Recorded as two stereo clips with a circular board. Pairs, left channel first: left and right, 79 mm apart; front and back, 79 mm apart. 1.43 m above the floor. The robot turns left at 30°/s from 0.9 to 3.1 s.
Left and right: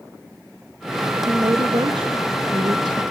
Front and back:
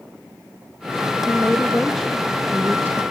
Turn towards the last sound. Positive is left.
turn(degrees=-120)